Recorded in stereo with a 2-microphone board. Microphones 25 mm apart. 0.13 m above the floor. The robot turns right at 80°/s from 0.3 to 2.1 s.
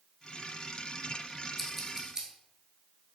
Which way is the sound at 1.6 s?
10° left (ahead or behind).